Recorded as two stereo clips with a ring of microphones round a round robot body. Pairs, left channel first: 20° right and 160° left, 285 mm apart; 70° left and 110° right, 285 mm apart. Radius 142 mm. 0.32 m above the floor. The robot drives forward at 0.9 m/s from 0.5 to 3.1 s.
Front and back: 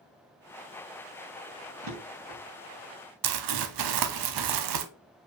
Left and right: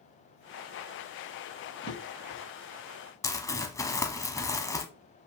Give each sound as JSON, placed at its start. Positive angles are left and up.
{"t": 1.8, "sound": "a drawer", "azimuth_deg": 140, "distance_m": 5.0}
{"t": 3.2, "sound": "crumpling", "azimuth_deg": 145, "distance_m": 0.9}